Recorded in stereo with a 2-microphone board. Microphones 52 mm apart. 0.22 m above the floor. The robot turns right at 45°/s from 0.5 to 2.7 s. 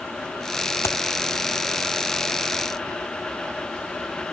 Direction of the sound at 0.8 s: 70° left (ahead or behind).